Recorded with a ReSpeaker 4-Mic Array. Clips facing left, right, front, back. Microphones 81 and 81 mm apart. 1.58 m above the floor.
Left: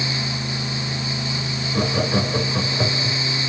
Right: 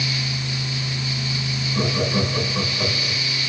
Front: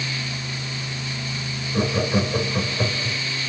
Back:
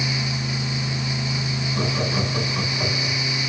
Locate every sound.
1.7 s laughter: 35° left, 1.8 m